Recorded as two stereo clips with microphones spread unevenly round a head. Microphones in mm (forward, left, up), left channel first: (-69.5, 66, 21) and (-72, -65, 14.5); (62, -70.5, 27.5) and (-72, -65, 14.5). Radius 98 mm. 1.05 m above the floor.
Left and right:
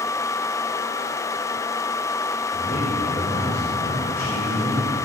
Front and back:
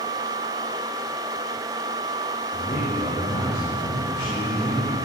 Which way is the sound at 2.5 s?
65° left.